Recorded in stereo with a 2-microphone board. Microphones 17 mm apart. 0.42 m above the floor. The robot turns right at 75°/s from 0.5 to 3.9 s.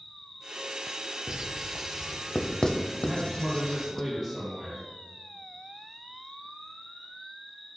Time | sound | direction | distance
0.0 | an insect | 145° left | 0.7 m
1.3 | writing | 55° right (ahead or behind) | 0.6 m
3.0 | a man speaking | 120° left | 2.5 m